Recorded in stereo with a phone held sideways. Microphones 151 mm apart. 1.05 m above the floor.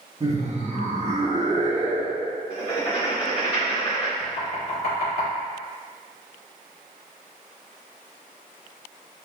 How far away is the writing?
About 1.2 m.